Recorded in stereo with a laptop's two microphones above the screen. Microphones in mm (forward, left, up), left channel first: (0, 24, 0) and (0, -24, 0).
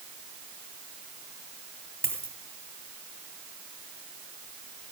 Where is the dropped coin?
55° right (ahead or behind), 2.5 m.